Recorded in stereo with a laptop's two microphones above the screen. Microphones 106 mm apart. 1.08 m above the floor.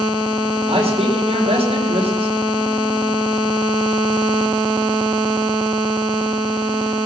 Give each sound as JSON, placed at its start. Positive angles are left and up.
{"t": 0.7, "sound": "a man speaking", "side_deg": -75, "distance_m": 4.5}